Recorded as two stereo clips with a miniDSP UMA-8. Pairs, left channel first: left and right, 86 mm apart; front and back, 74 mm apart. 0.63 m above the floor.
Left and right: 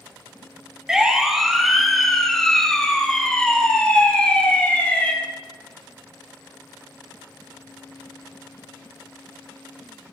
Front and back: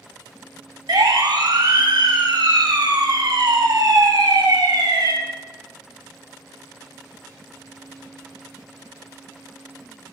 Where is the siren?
170° right, 3 m; by 5.1 s 160° left, 5 m.